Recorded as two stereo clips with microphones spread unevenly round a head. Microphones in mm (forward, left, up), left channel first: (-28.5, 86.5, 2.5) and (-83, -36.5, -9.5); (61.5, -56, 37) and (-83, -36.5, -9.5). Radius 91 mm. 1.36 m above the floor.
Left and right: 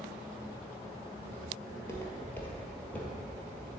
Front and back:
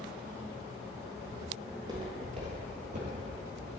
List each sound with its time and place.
1.7 s footsteps: 90° left, 1.5 m; by 3.7 s 145° left, 2.0 m